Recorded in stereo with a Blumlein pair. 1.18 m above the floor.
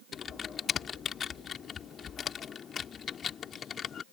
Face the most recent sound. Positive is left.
turn(degrees=25)